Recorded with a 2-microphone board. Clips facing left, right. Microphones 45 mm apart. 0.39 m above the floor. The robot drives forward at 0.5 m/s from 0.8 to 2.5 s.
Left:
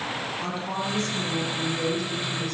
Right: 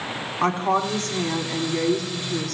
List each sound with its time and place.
0.4 s a woman speaking: 55° right (ahead or behind), 2.5 m; by 2.5 s 65° right (ahead or behind), 2.5 m